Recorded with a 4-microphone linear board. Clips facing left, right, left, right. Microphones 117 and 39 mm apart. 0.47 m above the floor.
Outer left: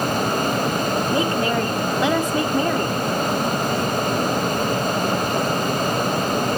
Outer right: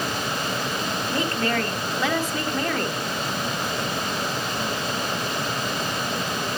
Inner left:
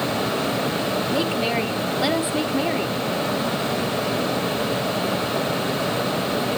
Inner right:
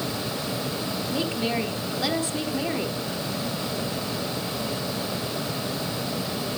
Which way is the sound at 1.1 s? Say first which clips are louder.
Outer left 2 dB, inner left 2 dB; 20° left (ahead or behind).